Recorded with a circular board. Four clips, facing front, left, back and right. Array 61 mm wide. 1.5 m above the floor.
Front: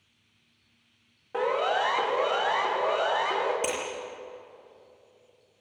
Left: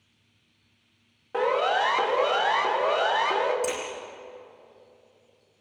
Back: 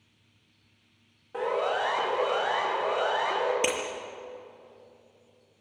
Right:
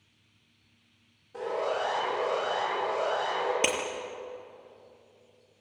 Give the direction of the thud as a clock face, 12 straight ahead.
No thud in this recording.